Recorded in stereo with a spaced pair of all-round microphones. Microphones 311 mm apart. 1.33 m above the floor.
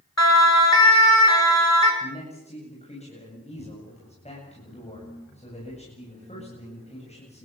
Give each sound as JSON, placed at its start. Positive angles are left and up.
{"t": 0.2, "sound": "a siren", "side_deg": 55, "distance_m": 4.5}
{"t": 2.0, "sound": "a man speaking", "side_deg": 20, "distance_m": 8.5}